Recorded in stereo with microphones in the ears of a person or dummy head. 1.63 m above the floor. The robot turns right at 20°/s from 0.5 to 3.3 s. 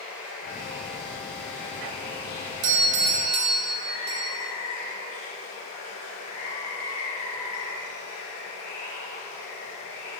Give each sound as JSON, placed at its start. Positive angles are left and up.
{"t": 0.0, "sound": "running water", "azimuth_deg": -10, "distance_m": 2.5}
{"t": 2.6, "sound": "a doorbell", "side_deg": -55, "distance_m": 1.0}